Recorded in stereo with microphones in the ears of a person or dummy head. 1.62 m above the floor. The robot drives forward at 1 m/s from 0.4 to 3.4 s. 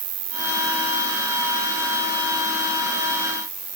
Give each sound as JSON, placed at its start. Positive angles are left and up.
{"t": 0.0, "sound": "an insect", "side_deg": -35}